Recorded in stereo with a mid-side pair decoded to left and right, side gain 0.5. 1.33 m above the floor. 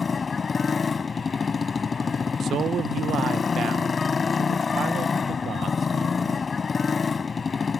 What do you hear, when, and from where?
0.0 s a motorcycle: 40° left
2.4 s a man speaking: 50° right